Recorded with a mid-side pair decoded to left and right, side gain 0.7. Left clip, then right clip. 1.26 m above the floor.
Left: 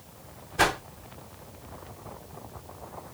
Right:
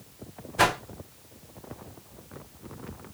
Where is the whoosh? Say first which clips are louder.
Right 1 dB; 5° right, 0.7 m.